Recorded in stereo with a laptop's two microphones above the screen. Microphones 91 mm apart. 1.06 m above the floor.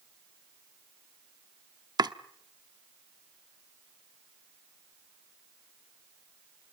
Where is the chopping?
45° right (ahead or behind), 0.9 m.